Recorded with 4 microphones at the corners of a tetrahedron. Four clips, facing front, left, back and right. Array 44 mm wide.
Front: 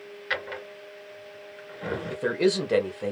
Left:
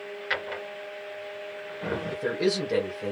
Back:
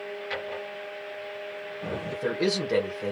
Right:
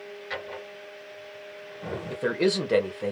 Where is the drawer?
45° left, 2 m.